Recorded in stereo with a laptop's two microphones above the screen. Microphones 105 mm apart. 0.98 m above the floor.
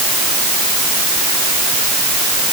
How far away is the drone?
I don't hear a drone.